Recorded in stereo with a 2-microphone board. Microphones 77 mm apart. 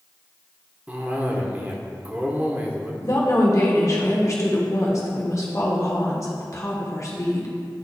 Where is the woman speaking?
45° left (ahead or behind), 1.2 m.